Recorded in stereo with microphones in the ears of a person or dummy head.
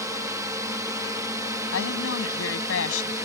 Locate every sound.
0.0 s a drone: 15° right (ahead or behind); by 3.2 s 10° right (ahead or behind)
1.7 s a woman speaking: 80° left